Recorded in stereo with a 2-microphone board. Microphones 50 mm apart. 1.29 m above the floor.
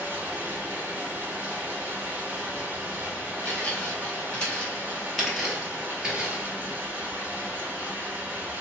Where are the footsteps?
30° left (ahead or behind), 2.0 m; by 6.5 s 25° right (ahead or behind), 1.4 m.